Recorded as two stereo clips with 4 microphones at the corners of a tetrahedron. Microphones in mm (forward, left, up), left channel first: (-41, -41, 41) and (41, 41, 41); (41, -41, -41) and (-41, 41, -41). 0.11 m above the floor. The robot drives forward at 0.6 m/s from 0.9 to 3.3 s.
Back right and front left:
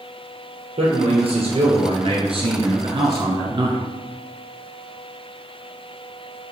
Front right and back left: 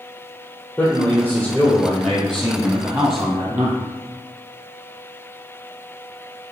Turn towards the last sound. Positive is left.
turn(degrees=85)